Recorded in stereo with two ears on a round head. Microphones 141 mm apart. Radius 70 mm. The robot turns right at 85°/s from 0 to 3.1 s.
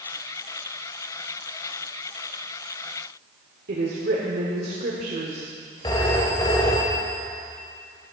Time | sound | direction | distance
3.7 | a woman speaking | 60° right (ahead or behind) | 1.7 m
5.8 | a phone ringing | 25° left (ahead or behind) | 1.7 m